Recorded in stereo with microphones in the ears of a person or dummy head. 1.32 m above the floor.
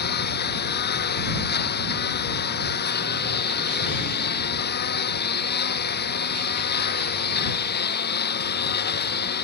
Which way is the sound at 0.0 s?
50° left (ahead or behind).